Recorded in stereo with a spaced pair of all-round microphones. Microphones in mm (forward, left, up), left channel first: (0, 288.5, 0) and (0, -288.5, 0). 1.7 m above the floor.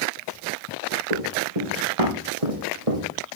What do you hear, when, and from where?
1.1 s running footsteps: 75° right (ahead or behind), 6.5 m; by 3.0 s 65° right (ahead or behind), 4.5 m